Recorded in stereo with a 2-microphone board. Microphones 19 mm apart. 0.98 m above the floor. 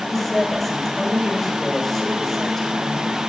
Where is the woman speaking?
15° left (ahead or behind), 4.5 m.